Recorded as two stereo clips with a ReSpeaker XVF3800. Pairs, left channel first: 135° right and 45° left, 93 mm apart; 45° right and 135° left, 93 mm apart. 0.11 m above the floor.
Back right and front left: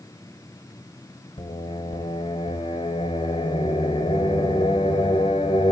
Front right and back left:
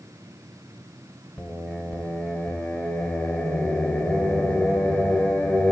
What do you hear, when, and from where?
1.4 s singing: 125° right, 1.0 m